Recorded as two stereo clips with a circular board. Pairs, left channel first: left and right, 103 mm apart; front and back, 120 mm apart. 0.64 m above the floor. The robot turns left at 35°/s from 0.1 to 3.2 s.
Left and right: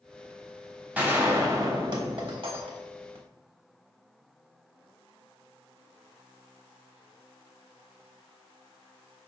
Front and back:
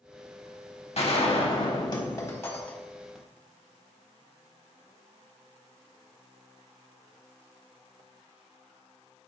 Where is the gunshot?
15° right, 1.1 m; by 3.2 s 90° right, 1.1 m.